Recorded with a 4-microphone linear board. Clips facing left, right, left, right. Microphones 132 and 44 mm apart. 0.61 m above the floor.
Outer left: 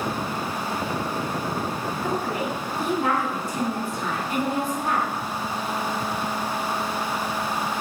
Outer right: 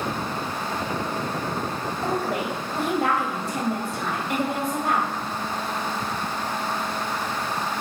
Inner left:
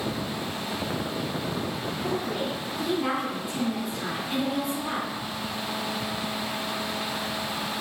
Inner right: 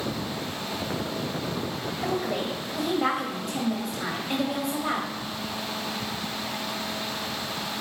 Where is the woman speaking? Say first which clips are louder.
Outer right 1 dB, inner right 2 dB; 75° right (ahead or behind), 2.5 m.